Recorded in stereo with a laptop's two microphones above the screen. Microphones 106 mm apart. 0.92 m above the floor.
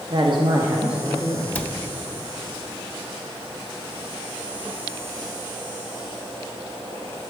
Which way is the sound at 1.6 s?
15° left (ahead or behind).